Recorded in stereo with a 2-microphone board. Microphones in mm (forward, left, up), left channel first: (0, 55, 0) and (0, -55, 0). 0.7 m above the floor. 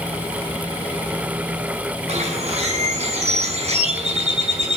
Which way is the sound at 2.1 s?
80° right.